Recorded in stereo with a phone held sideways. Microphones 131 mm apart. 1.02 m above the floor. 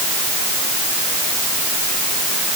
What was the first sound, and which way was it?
Only background noise.